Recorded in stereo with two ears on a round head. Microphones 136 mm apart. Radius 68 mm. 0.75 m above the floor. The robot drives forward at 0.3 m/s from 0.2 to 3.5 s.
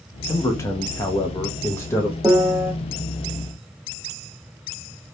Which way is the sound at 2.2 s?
10° right (ahead or behind).